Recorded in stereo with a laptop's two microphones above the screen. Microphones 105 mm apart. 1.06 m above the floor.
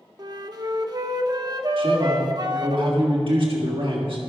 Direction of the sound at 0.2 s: 40° right (ahead or behind).